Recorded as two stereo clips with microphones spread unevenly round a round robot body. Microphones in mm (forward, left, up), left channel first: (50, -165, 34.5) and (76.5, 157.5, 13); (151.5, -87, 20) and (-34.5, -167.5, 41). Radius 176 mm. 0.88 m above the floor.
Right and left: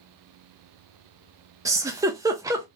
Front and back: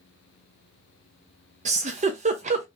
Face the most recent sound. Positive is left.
turn(degrees=155)